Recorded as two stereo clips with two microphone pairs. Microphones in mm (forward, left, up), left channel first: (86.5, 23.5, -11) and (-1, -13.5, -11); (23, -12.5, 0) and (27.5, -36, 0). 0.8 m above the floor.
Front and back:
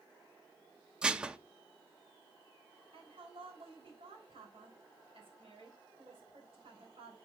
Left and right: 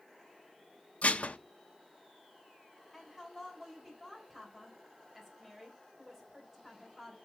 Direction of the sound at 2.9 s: 155° right.